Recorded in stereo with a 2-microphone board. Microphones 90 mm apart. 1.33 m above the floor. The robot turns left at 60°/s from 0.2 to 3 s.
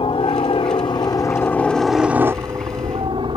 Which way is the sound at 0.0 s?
70° left (ahead or behind).